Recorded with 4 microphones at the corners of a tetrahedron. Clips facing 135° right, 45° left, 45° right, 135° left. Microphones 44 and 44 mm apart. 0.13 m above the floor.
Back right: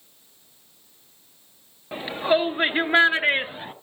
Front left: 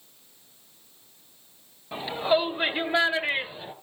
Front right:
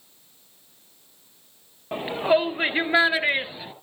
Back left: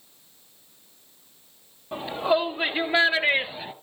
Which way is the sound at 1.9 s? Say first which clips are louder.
Back right 2 dB, front right 2 dB; 75° right.